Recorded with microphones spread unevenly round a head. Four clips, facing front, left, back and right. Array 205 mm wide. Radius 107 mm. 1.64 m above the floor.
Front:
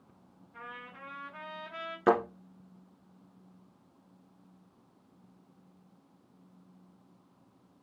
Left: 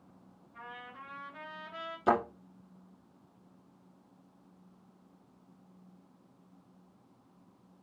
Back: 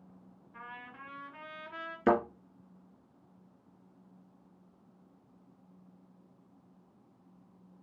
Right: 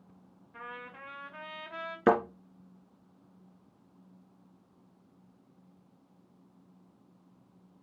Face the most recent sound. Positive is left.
turn(degrees=-100)